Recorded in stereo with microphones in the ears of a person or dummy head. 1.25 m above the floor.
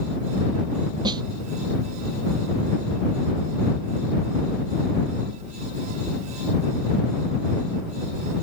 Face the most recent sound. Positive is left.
turn(degrees=-25)  # may be behind; listen again after turning